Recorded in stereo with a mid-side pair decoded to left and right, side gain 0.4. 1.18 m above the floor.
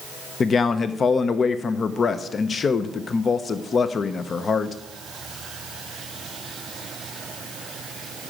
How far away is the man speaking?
About 0.6 m.